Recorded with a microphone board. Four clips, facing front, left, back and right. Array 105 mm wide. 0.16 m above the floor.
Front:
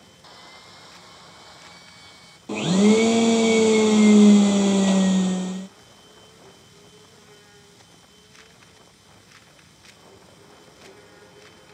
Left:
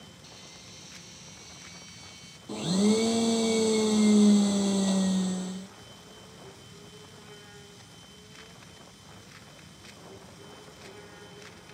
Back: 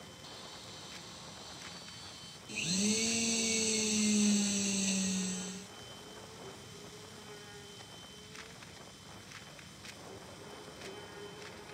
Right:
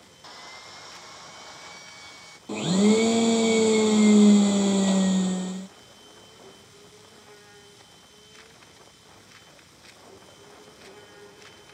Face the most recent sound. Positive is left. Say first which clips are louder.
# right 4 dB, front 18 dB
turn(degrees=-15)